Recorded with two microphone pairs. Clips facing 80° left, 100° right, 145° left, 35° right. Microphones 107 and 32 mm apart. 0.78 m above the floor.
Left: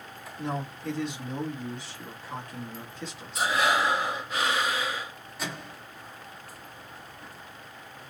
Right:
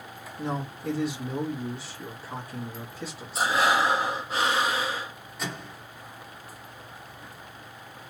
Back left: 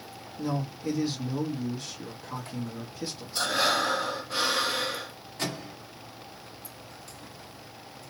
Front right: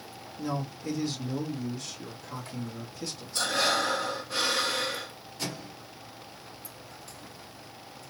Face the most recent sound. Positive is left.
turn(degrees=165)